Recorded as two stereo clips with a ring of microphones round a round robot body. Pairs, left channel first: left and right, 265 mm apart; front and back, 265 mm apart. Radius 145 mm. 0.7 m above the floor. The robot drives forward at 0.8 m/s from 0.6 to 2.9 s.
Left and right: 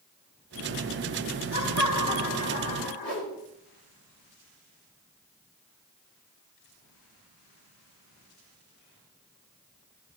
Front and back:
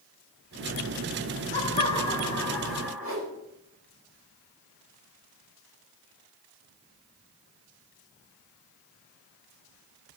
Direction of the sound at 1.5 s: 60° left.